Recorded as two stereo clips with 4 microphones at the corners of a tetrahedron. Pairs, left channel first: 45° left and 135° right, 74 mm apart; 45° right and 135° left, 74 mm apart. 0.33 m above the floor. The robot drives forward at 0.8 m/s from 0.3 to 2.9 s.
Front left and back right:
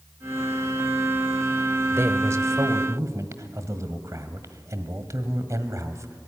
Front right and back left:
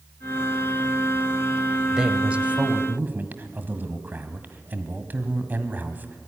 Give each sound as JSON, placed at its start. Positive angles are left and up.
{"t": 1.9, "sound": "a man speaking", "azimuth_deg": -150, "distance_m": 1.1}